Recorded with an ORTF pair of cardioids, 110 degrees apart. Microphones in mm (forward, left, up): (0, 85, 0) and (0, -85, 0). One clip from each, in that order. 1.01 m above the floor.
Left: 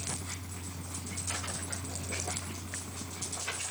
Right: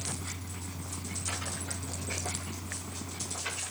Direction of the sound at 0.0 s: 5° right.